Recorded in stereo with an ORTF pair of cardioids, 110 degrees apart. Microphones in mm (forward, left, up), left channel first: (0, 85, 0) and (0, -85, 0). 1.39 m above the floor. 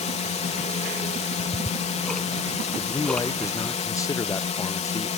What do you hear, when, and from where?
0.0 s a drone: 40° left
1.4 s ticking: 5° left
2.8 s a man speaking: 20° left